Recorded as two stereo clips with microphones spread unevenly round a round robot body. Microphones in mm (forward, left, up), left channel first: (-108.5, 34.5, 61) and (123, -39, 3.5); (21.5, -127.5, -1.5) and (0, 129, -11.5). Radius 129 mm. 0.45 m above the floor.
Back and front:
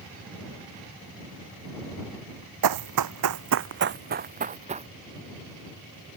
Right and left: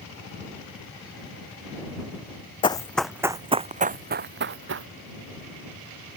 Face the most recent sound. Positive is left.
turn(degrees=50)